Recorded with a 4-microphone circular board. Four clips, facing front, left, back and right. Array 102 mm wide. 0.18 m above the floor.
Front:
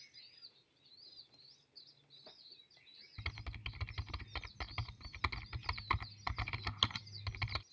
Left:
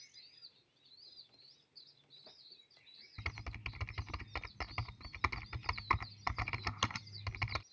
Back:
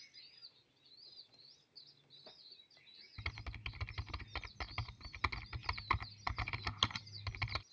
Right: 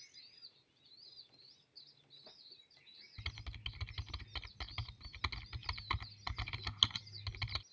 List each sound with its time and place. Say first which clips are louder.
3.2 s typing on a keyboard: left 6 dB, even; 95° left